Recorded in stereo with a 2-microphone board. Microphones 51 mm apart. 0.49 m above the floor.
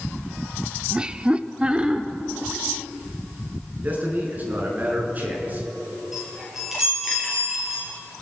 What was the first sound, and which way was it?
Laughter, 15° right (ahead or behind).